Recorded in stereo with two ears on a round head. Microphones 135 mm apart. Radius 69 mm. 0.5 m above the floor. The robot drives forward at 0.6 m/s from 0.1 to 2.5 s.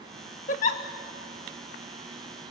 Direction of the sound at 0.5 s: 55° left (ahead or behind).